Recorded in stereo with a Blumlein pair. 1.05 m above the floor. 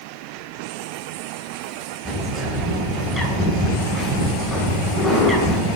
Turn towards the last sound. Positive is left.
turn(degrees=0)